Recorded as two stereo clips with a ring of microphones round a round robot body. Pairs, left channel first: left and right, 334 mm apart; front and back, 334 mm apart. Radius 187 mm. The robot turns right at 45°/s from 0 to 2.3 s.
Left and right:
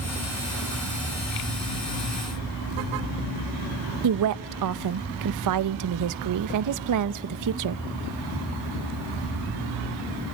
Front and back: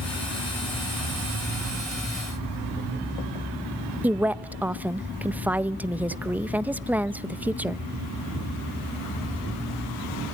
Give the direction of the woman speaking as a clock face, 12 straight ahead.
3 o'clock.